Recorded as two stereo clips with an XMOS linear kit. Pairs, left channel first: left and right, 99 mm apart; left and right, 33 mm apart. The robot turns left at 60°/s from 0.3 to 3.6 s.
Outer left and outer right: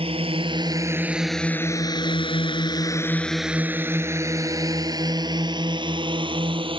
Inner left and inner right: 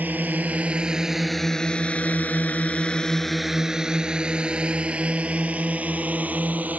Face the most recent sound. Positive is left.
turn(degrees=-55)  # may be behind; listen again after turning